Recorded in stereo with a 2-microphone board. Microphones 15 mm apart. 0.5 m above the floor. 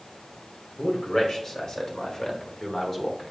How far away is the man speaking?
About 1.9 m.